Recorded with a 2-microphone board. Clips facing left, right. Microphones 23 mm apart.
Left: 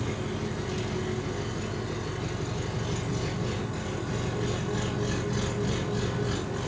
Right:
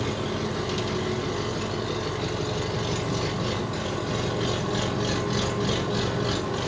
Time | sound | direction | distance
0.0 | an engine running | 45° right (ahead or behind) | 3.5 m